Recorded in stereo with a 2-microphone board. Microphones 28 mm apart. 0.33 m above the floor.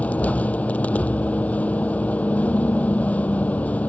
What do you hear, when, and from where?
0.0 s a vehicle: 60° left (ahead or behind)